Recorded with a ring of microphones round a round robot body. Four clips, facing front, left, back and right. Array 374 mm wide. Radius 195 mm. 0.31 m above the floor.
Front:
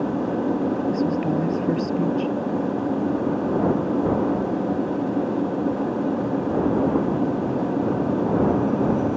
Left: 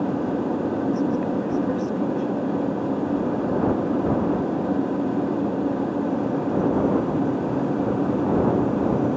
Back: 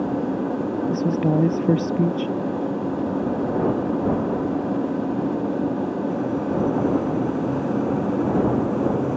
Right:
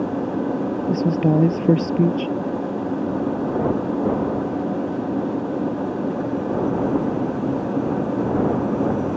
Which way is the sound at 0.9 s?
115° right.